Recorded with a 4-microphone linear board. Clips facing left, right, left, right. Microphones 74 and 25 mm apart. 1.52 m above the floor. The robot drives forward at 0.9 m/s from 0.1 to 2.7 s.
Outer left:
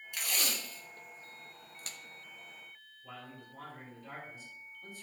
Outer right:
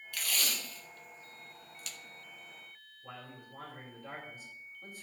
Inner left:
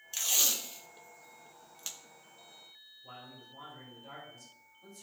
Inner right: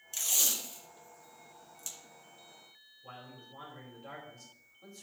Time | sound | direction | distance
0.1 | tape being pulled | 20° left (ahead or behind) | 1.5 m
3.0 | a man speaking | 50° right (ahead or behind) | 3.5 m